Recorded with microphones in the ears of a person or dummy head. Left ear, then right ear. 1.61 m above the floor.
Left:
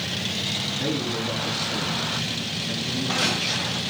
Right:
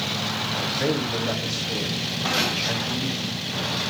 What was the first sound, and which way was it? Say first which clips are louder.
A man speaking: right 2 dB; 45° right (ahead or behind).